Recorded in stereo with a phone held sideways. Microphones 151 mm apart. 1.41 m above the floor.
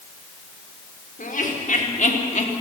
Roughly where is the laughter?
Left.